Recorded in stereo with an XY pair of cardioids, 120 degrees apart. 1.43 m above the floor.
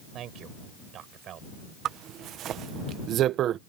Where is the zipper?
60° right.